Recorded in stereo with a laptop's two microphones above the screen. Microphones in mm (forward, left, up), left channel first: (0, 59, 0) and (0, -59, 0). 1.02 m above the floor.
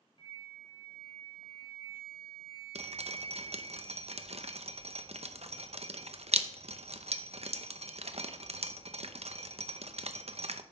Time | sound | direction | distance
0.2 | a flute | 40° left (ahead or behind) | 1.3 m
2.8 | dripping | 60° right (ahead or behind) | 0.7 m